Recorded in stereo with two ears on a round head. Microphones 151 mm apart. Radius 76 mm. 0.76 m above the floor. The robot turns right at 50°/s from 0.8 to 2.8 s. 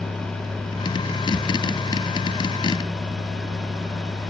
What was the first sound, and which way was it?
Only background noise.